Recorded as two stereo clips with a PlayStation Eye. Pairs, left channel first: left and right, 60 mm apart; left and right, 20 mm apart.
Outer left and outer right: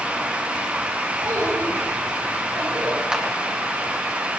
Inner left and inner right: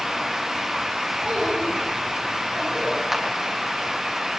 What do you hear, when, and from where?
1.2 s a child speaking: 80° right, 9 m
3.1 s a clap: 15° right (ahead or behind), 2.5 m